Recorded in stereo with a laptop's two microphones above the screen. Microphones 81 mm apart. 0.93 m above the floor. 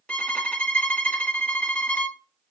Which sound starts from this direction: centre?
A violin, at 0.1 s.